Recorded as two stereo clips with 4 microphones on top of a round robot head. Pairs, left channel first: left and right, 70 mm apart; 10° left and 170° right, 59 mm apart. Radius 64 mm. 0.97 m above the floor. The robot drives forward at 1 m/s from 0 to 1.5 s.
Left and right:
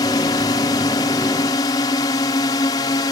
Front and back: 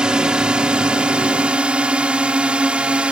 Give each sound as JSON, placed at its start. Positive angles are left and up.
{"t": 0.0, "sound": "a drone", "azimuth_deg": 115}